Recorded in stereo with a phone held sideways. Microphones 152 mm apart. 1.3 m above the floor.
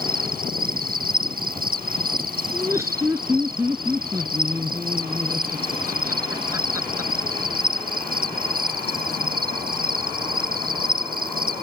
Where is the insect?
75° right (ahead or behind).